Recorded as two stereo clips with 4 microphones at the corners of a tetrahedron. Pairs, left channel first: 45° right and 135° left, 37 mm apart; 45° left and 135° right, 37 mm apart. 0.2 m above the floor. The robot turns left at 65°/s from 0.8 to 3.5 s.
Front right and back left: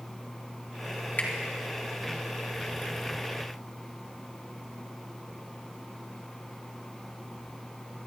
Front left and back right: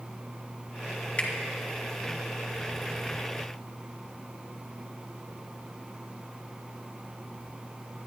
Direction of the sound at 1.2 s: 10° right.